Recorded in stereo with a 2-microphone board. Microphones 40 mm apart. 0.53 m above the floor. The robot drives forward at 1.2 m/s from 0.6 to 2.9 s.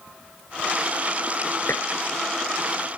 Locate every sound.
1.7 s dishes clattering: 75° left (ahead or behind); by 1.9 s 80° left